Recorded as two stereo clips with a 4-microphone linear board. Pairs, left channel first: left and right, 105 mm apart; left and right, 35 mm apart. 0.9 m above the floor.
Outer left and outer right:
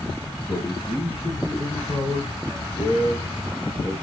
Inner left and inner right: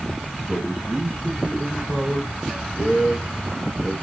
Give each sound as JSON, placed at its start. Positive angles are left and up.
{"t": 0.5, "sound": "a man speaking", "side_deg": 70, "distance_m": 7.5}